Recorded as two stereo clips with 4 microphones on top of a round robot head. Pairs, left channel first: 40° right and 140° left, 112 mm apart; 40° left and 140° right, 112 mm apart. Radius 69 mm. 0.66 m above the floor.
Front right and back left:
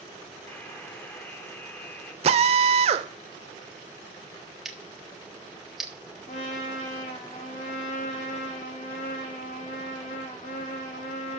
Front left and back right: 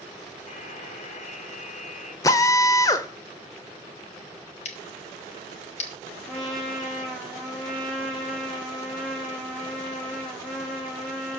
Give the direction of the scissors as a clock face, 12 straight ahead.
10 o'clock.